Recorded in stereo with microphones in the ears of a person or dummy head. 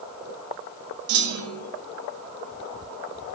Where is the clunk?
80° right, 1.2 m.